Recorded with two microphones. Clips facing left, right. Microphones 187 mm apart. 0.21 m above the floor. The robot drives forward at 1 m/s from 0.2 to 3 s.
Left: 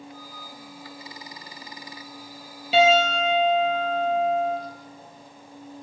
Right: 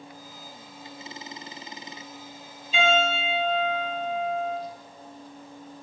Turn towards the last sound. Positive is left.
turn(degrees=75)  # may be behind; listen again after turning